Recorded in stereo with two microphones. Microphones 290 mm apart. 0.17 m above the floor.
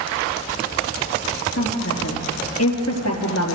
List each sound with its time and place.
1.6 s a woman speaking: 60° left (ahead or behind), 4 m